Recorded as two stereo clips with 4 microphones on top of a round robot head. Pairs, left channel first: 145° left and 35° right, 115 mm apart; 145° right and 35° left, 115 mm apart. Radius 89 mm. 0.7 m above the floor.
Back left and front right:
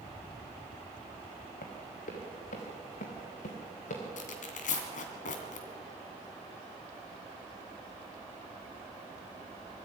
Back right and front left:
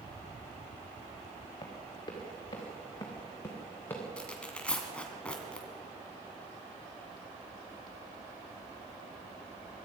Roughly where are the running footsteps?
Behind.